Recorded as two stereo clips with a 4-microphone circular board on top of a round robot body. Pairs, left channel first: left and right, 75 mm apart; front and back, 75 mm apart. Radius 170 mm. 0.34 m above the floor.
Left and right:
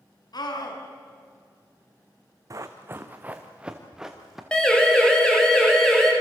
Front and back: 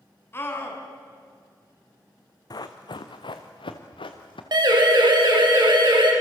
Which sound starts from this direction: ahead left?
A scream, at 0.3 s.